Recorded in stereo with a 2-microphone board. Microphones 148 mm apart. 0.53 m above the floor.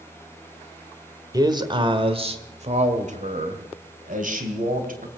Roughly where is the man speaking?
Right.